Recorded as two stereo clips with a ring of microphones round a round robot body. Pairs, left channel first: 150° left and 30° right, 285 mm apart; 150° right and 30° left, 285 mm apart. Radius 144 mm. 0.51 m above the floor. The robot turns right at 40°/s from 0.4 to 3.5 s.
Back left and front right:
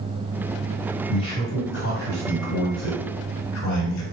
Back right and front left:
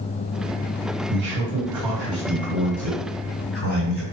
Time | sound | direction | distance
1.1 | a man speaking | 85° left | 2 m